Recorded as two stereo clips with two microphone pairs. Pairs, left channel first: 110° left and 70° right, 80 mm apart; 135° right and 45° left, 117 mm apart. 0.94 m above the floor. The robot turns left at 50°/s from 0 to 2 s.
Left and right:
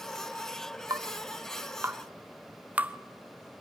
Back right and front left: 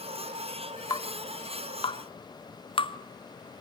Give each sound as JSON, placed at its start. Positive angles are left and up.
{"t": 0.9, "sound": "dripping", "azimuth_deg": -85, "distance_m": 0.6}